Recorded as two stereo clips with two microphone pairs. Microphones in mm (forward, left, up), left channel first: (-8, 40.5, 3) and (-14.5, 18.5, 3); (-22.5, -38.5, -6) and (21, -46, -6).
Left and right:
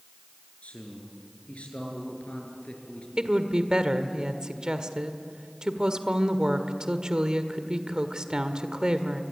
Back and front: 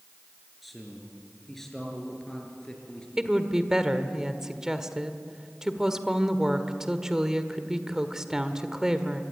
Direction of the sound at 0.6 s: 80° left.